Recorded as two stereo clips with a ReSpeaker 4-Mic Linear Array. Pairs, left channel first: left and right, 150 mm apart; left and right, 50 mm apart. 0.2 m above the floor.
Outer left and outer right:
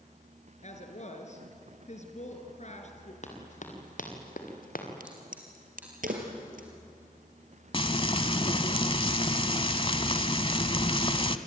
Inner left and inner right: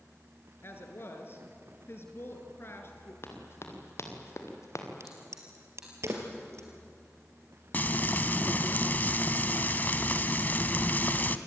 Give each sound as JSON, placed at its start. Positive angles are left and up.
{"t": 0.6, "sound": "a woman speaking", "side_deg": 50, "distance_m": 3.0}
{"t": 3.2, "sound": "running footsteps", "side_deg": 50, "distance_m": 5.0}
{"t": 5.0, "sound": "a crack", "side_deg": -70, "distance_m": 3.5}
{"t": 7.7, "sound": "frying", "side_deg": 35, "distance_m": 0.9}